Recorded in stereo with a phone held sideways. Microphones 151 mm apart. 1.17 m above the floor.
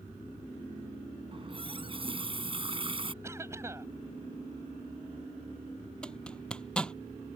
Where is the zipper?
5° left (ahead or behind).